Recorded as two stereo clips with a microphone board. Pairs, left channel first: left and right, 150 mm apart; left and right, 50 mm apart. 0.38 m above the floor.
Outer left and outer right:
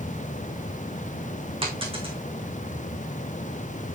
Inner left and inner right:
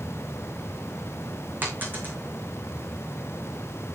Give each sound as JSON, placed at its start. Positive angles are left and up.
{"t": 1.6, "sound": "a dropped coin", "side_deg": -35, "distance_m": 3.5}